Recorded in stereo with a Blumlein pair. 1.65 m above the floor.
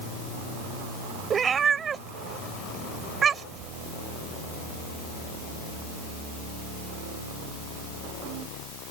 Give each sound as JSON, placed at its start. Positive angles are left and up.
{"t": 1.3, "sound": "a cat meowing", "azimuth_deg": -20}